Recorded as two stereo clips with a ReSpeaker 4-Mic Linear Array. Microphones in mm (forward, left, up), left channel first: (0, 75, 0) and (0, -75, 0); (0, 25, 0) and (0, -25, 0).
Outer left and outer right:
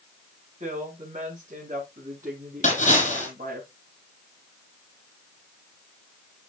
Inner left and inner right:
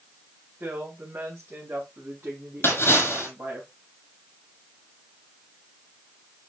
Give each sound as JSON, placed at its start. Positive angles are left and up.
{"t": 0.6, "sound": "a woman speaking", "side_deg": -60, "distance_m": 4.5}
{"t": 2.6, "sound": "a splash", "side_deg": 55, "distance_m": 5.0}